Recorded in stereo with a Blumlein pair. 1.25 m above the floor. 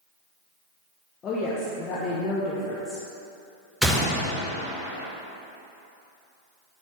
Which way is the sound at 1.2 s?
25° left.